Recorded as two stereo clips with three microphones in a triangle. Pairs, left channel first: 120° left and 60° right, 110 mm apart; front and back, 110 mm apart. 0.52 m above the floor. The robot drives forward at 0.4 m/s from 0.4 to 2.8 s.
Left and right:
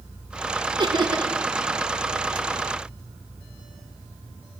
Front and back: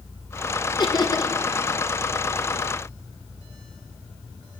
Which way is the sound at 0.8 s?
35° right.